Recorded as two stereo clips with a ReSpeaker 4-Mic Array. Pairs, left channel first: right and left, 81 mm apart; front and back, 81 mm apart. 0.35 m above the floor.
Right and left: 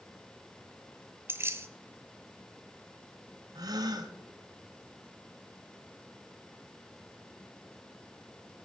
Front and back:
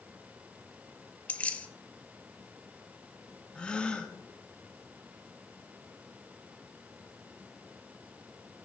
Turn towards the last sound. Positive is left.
turn(degrees=75)